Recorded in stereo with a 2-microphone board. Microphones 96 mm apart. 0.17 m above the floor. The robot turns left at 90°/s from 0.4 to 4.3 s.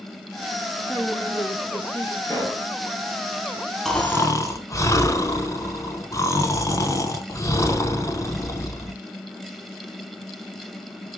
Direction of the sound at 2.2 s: 45° left.